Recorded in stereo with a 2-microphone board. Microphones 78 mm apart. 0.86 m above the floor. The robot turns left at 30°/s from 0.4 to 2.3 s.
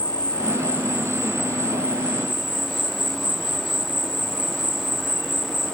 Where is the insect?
60° left; by 5.8 s 5° left.